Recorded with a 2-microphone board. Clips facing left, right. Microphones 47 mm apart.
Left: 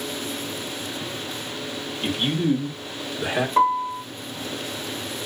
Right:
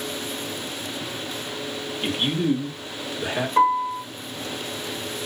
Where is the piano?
5° left (ahead or behind), 1.2 m.